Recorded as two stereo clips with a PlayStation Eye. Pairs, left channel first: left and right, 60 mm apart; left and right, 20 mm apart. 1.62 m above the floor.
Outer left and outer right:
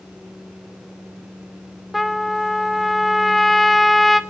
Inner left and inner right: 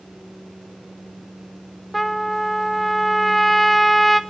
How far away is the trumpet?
About 0.7 m.